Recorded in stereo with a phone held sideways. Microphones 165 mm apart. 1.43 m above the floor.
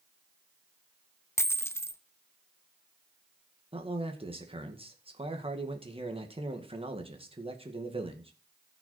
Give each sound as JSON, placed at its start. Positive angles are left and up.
{"t": 1.4, "sound": "a dropped coin", "side_deg": 15, "distance_m": 0.7}
{"t": 3.7, "sound": "a man speaking", "side_deg": -35, "distance_m": 1.9}